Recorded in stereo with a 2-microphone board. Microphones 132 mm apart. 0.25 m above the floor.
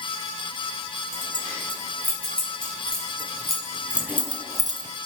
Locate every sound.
1.1 s keys jangling: 15° left (ahead or behind), 4 m; by 4.9 s 40° right (ahead or behind), 0.9 m